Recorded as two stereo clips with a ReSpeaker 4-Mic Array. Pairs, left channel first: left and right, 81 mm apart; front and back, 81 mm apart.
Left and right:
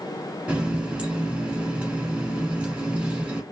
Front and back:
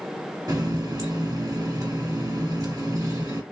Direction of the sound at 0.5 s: 160° right.